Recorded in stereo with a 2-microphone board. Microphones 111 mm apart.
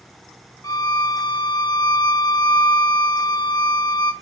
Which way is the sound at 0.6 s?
35° left (ahead or behind).